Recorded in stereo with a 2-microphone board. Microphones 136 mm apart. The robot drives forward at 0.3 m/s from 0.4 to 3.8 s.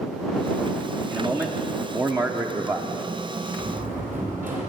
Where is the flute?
No flute in this recording.